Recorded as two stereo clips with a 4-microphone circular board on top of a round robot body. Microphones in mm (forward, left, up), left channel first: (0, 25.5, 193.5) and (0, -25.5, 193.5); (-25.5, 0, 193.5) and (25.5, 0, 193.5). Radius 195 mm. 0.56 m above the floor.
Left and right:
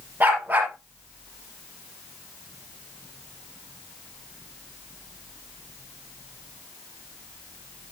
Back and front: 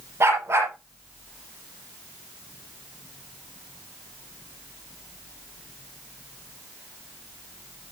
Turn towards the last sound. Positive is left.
turn(degrees=-35)